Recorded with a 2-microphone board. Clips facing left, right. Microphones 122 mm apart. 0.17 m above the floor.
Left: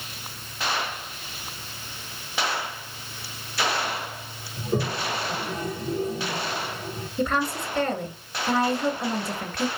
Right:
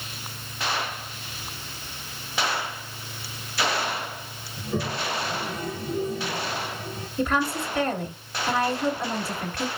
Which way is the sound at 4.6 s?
40° left (ahead or behind).